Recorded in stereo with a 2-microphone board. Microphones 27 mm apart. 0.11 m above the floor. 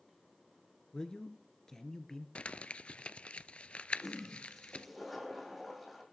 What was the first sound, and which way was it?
A man speaking, 25° left (ahead or behind).